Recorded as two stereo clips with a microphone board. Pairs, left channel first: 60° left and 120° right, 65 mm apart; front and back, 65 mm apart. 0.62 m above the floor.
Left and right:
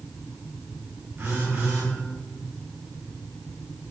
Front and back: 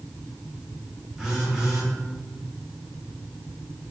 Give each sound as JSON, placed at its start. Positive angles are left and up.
{"t": 1.2, "sound": "a phone buzzing", "azimuth_deg": -105, "distance_m": 1.4}